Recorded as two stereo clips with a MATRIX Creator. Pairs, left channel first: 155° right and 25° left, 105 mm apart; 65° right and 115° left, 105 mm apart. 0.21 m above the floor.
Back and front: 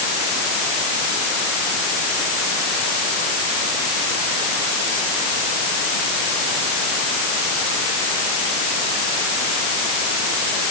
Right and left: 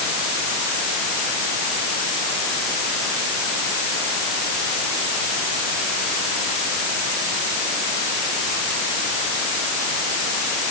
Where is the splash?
I don't hear a splash.